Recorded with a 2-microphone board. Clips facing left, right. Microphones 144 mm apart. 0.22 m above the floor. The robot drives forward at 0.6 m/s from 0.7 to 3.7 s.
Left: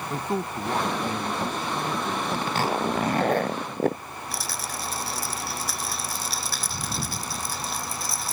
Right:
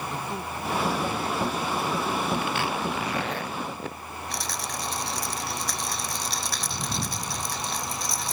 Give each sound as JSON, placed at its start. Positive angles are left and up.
{"t": 0.1, "sound": "a man speaking", "side_deg": 45}
{"t": 2.3, "sound": "a zipper", "side_deg": 40}
{"t": 4.3, "sound": "a rattle", "side_deg": 5}